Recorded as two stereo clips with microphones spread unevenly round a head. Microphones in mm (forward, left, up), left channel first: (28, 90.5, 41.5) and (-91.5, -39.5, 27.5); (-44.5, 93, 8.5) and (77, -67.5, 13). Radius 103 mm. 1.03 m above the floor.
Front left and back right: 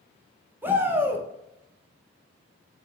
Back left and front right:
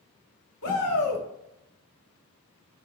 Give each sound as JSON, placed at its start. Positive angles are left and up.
{"t": 0.6, "sound": "a shout", "azimuth_deg": 150, "distance_m": 1.6}